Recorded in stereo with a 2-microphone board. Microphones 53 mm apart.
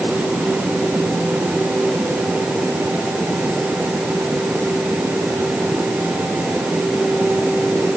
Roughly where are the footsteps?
No footsteps in this recording.